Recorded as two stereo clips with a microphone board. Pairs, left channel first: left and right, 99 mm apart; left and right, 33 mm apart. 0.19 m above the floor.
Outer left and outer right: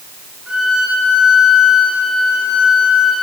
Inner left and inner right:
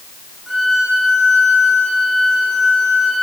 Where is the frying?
No frying in this recording.